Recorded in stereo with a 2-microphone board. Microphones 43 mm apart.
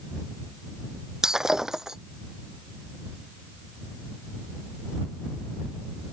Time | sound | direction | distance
1.2 | breaking glass | 15° right (ahead or behind) | ?